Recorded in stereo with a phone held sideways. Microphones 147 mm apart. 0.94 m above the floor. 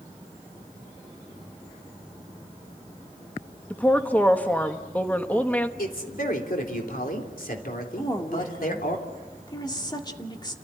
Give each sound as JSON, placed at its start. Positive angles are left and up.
{"t": 3.7, "sound": "a woman speaking", "side_deg": 10, "distance_m": 1.5}
{"t": 5.8, "sound": "a man speaking", "side_deg": 75, "distance_m": 3.5}
{"t": 8.0, "sound": "a woman speaking", "side_deg": 30, "distance_m": 2.0}